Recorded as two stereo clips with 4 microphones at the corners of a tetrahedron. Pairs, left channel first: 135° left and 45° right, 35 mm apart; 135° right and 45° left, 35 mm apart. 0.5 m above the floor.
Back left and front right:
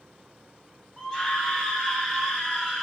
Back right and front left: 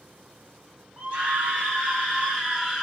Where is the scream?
70° left, 1.6 m; by 2.8 s 125° left, 1.5 m.